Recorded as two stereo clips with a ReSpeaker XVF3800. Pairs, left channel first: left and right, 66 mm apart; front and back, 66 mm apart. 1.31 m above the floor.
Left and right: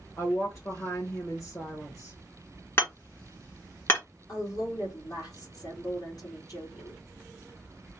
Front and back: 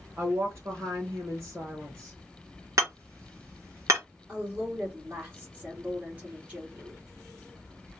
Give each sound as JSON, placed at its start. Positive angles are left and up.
{"t": 0.2, "sound": "a woman speaking", "azimuth_deg": 135, "distance_m": 1.5}
{"t": 2.8, "sound": "hammering", "azimuth_deg": 140, "distance_m": 2.5}
{"t": 4.3, "sound": "a woman speaking", "azimuth_deg": 115, "distance_m": 2.0}